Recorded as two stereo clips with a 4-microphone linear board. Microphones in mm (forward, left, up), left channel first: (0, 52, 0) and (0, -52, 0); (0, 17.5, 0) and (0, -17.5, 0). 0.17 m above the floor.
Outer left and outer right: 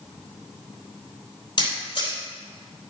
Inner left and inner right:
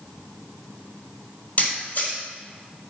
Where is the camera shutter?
45° left (ahead or behind), 4.5 m.